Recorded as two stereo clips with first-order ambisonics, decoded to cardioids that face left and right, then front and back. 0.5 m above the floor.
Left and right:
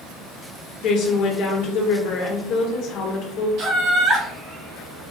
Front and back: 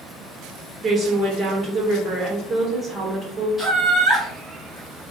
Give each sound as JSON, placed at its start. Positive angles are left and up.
{"t": 0.8, "sound": "a woman speaking", "azimuth_deg": 115, "distance_m": 1.0}
{"t": 3.6, "sound": "laughter", "azimuth_deg": -95, "distance_m": 1.4}